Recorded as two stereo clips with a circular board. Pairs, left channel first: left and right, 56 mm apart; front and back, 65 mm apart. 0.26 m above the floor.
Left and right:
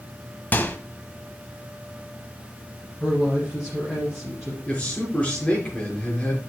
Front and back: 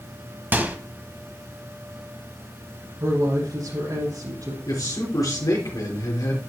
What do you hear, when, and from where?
0.5 s a microwave: 135° left, 1.2 m
3.0 s a woman speaking: straight behind, 5.5 m
4.7 s a man speaking: 25° left, 4 m